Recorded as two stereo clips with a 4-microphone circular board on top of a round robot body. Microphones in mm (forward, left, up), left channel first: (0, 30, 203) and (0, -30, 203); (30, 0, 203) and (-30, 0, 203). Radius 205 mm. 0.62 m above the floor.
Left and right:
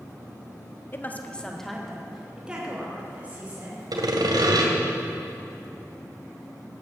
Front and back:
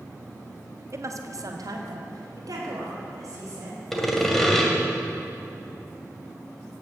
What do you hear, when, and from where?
0.9 s a woman speaking: 145° left, 1.5 m; by 3.8 s 155° right, 4 m
3.9 s sawing: 85° right, 2.0 m